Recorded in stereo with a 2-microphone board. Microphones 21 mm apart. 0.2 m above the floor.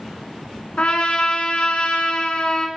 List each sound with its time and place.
0.8 s a trumpet: 60° left (ahead or behind), 0.6 m